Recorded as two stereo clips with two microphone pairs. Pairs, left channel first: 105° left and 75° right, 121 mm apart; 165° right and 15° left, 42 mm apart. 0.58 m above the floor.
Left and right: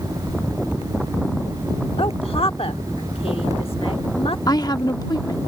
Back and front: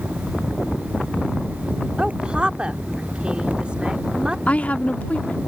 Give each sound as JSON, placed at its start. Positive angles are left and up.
{"t": 2.0, "sound": "a woman speaking", "azimuth_deg": 80}
{"t": 4.5, "sound": "a woman speaking", "azimuth_deg": 155}